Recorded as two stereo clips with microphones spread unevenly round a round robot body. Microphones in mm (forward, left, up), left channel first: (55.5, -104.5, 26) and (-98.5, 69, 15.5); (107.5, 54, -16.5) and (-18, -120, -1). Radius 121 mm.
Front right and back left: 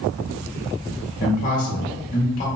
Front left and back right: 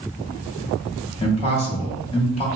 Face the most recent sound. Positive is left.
turn(degrees=0)